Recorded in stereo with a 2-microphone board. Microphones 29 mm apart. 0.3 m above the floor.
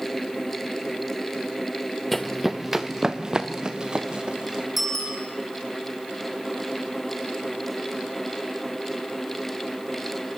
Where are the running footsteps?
5° left (ahead or behind), 1.1 m; by 4.7 s 35° right (ahead or behind), 4 m.